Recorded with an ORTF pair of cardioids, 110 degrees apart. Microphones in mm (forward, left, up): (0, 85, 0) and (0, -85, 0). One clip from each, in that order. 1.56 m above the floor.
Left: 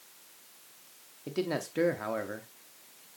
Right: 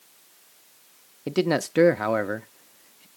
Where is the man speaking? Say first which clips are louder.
Right 9 dB; 45° right, 0.5 m.